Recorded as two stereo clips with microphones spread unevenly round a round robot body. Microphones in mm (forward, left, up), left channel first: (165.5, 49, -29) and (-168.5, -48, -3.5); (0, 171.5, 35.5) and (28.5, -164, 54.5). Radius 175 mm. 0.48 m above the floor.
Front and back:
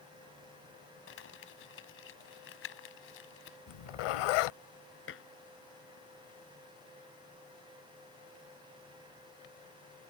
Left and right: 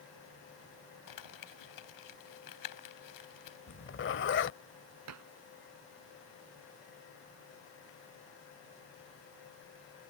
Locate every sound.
1.1 s crumpling: 70° left
3.7 s a zipper: 35° left
5.1 s dishes clattering: 40° right